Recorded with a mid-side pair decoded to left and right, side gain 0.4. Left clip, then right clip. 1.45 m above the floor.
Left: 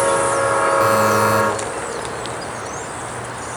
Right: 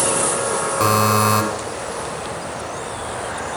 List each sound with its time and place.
0.8 s a buzzer: 45° right, 7.5 m